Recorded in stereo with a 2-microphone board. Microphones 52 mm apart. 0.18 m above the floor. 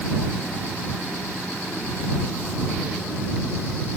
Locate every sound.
Only background noise.